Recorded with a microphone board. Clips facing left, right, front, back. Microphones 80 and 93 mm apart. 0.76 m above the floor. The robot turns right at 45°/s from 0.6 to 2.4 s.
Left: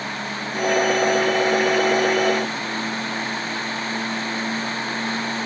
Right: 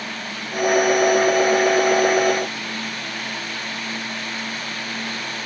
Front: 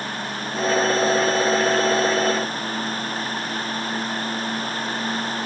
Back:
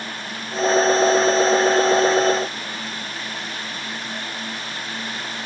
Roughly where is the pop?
I don't hear a pop.